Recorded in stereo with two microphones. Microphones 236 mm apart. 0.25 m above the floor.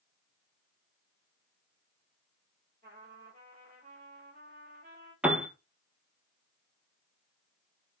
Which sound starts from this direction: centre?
A piano, at 5.2 s.